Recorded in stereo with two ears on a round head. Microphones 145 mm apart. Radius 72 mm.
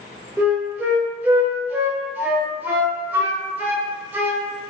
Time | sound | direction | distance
0.4 | a flute | 10° right (ahead or behind) | 0.7 m